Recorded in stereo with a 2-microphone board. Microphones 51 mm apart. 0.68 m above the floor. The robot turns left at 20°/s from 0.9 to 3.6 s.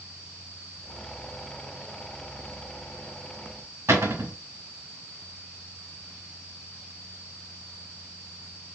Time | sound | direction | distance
3.9 | a cupboard door | 60° right (ahead or behind) | 1.7 m